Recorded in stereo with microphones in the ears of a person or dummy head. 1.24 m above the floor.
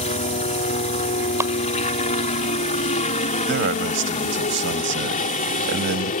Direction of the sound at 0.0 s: 35° left (ahead or behind).